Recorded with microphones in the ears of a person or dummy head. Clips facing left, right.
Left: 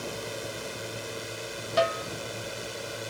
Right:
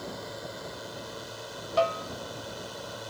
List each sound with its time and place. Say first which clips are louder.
0.0 s a drone: left 3 dB; 35° left (ahead or behind); by 3.1 s 30° left (ahead or behind)
1.8 s a snare drum: even; 20° left (ahead or behind)